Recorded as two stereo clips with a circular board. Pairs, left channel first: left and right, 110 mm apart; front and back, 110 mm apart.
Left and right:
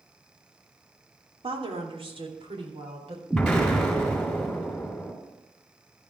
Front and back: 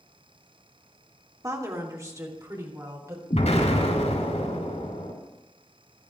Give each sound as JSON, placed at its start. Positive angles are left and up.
{"t": 1.4, "sound": "a woman speaking", "azimuth_deg": -120, "distance_m": 2.5}
{"t": 3.3, "sound": "an explosion", "azimuth_deg": 5, "distance_m": 4.5}